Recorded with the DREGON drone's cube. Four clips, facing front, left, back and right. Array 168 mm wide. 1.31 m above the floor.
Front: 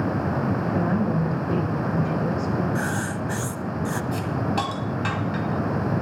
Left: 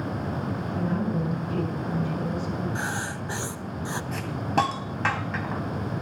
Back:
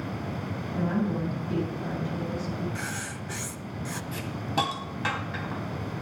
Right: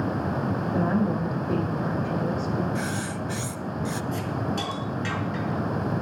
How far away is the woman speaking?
About 5 m.